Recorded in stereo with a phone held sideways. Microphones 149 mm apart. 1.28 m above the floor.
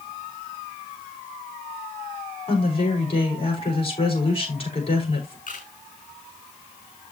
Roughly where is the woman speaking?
Left.